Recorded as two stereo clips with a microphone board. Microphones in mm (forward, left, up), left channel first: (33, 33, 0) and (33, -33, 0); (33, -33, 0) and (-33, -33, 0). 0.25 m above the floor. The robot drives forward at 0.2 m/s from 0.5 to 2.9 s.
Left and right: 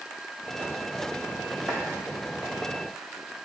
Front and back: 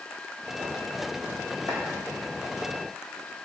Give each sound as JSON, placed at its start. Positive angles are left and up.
{"t": 1.7, "sound": "chopping", "azimuth_deg": -165, "distance_m": 3.5}